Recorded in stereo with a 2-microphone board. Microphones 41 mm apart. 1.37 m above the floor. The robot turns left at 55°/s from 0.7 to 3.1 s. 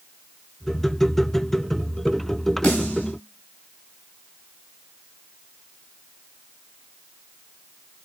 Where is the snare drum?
25° left (ahead or behind), 4 m; by 3.1 s 50° left (ahead or behind), 4 m.